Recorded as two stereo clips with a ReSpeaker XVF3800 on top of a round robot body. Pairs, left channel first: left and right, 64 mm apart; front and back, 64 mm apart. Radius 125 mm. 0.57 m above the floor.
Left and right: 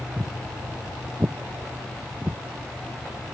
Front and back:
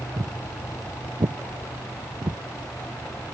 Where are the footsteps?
170° right; by 2.4 s 160° right.